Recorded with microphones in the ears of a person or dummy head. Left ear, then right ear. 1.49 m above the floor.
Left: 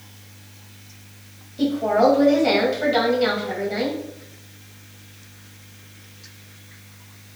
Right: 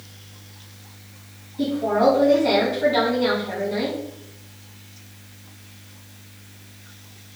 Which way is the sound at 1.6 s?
80° left.